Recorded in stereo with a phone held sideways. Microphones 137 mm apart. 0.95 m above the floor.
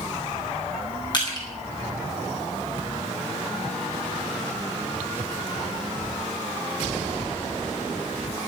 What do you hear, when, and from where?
1.1 s crushing: 35° left (ahead or behind), 9 m